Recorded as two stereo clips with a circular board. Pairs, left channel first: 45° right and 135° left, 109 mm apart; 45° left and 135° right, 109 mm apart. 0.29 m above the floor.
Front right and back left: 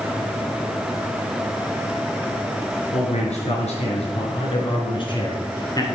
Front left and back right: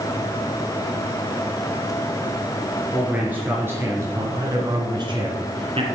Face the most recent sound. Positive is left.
turn(degrees=-105)